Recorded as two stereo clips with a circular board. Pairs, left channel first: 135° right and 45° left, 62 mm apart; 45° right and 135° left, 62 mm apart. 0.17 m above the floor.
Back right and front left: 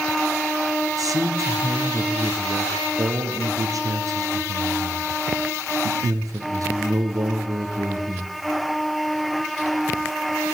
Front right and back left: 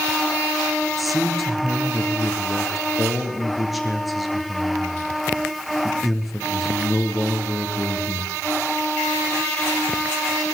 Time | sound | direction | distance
1.0 | a man speaking | 45° left | 3.5 m